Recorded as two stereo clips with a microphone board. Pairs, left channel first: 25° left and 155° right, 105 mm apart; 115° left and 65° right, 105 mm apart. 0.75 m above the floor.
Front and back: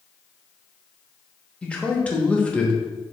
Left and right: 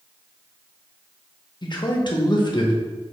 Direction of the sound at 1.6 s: 100° left.